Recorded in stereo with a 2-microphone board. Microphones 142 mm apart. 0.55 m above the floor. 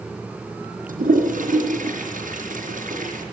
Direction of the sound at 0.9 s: 90° right.